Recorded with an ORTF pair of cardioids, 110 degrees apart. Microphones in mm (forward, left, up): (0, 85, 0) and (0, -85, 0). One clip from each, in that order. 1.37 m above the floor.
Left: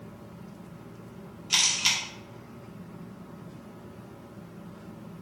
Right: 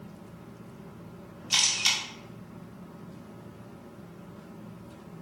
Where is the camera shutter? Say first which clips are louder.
Left 1 dB; straight ahead, 2.0 m.